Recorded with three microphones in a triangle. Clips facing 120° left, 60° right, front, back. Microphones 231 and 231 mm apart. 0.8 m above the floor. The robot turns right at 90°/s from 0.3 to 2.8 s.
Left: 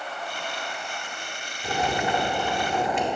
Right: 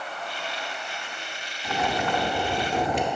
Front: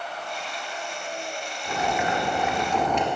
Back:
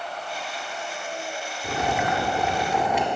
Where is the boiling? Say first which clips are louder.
Left 1 dB, back 1 dB; 155° left, 1.1 m; by 3.0 s 100° right, 1.1 m.